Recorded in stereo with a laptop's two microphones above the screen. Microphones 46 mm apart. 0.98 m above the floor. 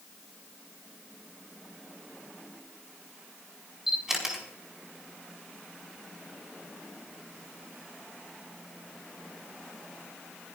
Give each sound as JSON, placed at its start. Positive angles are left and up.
{"t": 3.9, "sound": "a camera shutter", "side_deg": -10, "distance_m": 4.5}